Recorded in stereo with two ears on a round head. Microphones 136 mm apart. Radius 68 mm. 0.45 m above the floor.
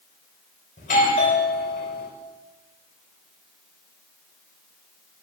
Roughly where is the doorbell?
Left.